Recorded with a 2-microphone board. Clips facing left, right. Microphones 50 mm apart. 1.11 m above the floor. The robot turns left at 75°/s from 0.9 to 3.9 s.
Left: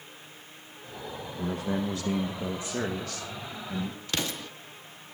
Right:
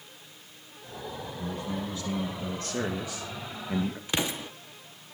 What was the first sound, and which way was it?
A man speaking, 110° left.